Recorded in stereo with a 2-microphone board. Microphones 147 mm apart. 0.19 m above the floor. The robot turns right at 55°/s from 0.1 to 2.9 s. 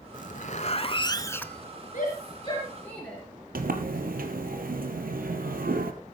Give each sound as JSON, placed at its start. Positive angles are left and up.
{"t": 0.1, "sound": "a zipper", "azimuth_deg": 95, "distance_m": 0.7}
{"t": 1.9, "sound": "a shout", "side_deg": 60, "distance_m": 3.0}
{"t": 3.5, "sound": "a sliding door", "side_deg": -80, "distance_m": 1.6}